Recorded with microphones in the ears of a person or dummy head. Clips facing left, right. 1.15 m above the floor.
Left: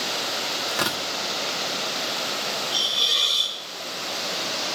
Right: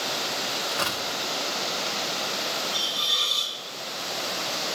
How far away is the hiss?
About 8 m.